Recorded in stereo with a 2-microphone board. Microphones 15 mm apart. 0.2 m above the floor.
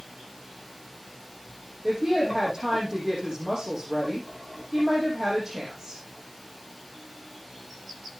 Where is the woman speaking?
20° right (ahead or behind), 6.5 m.